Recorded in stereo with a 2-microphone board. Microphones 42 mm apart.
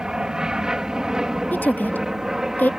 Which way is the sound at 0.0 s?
15° right (ahead or behind).